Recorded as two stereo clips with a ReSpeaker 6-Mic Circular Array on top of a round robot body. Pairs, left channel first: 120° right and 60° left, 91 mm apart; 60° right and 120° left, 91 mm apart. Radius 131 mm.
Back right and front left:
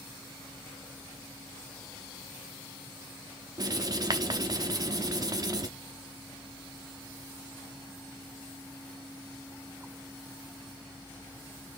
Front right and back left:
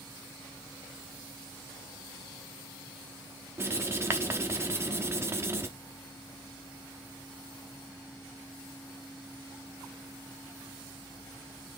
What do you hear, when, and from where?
3.6 s writing: 75° left, 1.0 m